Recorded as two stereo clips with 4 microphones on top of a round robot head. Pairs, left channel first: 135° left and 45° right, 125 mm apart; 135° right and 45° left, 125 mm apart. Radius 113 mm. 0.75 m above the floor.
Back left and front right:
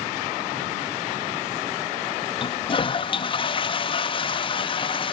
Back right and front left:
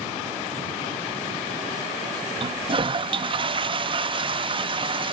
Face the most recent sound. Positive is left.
turn(degrees=90)